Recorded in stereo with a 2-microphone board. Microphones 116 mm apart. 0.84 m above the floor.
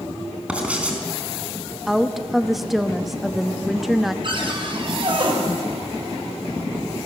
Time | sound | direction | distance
0.5 | writing | 10° right (ahead or behind) | 4 m
1.9 | a woman speaking | centre (ahead or behind) | 1.1 m
4.2 | a cupboard door | 45° right (ahead or behind) | 4 m